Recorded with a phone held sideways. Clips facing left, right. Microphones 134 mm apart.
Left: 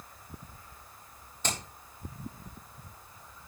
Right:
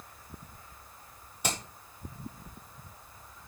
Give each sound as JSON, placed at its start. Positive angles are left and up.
{"t": 1.4, "sound": "hammering", "side_deg": -10, "distance_m": 4.0}